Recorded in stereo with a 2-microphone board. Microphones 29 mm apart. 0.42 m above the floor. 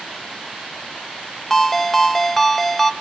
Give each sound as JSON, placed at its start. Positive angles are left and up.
{"t": 1.5, "sound": "a ringtone", "side_deg": 10, "distance_m": 0.9}